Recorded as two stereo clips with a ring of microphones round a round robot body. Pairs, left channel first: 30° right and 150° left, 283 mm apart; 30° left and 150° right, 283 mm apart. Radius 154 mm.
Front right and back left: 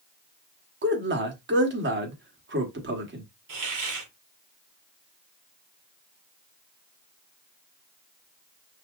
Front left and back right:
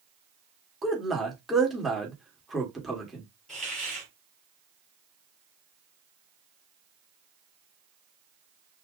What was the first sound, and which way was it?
A man speaking, 120° left.